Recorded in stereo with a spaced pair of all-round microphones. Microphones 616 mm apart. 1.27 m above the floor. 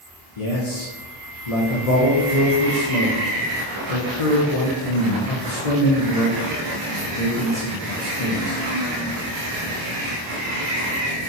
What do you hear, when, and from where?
0.4 s a man speaking: 70° left (ahead or behind), 0.8 m